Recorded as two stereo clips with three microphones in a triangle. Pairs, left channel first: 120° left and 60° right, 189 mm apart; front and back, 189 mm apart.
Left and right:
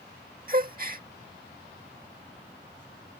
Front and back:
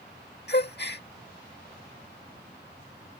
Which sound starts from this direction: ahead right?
A gasp, at 0.5 s.